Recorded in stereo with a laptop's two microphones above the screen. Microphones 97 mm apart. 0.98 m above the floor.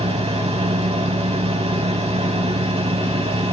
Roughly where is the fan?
Right.